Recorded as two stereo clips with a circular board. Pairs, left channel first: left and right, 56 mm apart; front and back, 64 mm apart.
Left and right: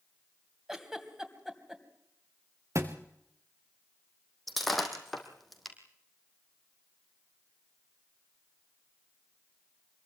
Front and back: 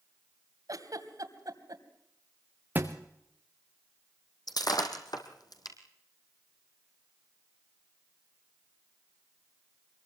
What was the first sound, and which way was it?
A giggle, 170° right.